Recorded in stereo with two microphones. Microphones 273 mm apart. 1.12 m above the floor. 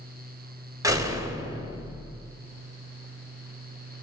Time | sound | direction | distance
0.8 | a door slam | 10° right (ahead or behind) | 3.5 m